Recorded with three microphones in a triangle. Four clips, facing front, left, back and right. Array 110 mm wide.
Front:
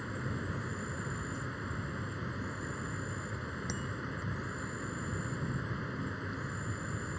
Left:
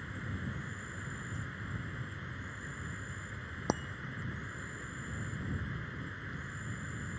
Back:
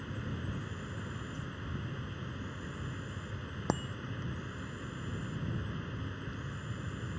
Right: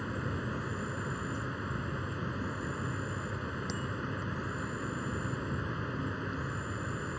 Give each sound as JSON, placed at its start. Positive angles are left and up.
{"t": 0.0, "sound": "an insect", "azimuth_deg": -80}
{"t": 3.7, "sound": "a bicycle bell", "azimuth_deg": 130}